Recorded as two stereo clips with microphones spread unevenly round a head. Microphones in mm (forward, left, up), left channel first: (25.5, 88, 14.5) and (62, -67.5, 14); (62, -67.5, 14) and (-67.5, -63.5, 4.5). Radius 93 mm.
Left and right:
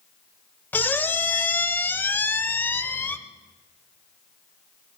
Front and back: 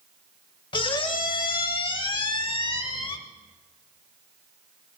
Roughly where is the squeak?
Ahead left.